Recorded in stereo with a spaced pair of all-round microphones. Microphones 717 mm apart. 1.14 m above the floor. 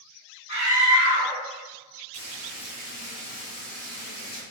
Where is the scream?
20° left (ahead or behind), 1.9 m.